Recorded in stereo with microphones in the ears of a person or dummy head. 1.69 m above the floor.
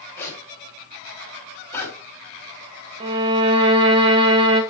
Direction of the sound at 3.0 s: 30° right (ahead or behind).